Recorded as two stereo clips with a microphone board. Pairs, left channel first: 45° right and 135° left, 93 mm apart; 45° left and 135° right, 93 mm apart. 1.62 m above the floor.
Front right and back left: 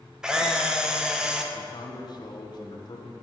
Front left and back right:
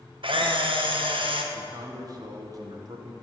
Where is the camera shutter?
145° right, 1.0 m.